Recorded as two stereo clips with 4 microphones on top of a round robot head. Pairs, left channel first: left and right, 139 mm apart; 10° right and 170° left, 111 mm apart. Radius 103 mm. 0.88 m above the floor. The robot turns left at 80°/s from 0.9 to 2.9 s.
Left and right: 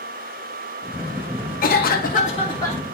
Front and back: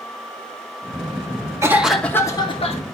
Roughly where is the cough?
Left.